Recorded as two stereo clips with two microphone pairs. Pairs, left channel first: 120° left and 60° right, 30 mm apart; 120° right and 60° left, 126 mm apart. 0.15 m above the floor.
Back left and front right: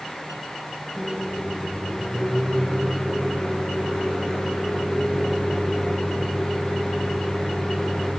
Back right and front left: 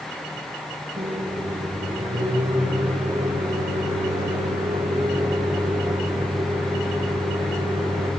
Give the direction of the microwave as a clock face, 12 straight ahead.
10 o'clock.